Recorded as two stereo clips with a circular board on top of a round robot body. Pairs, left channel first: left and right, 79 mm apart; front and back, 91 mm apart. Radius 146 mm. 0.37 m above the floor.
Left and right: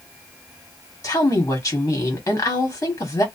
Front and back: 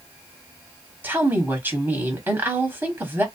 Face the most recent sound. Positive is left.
turn(degrees=125)